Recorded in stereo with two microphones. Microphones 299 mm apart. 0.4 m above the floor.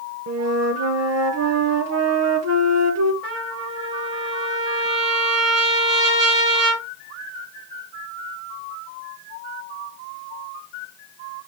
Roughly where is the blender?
I don't hear a blender.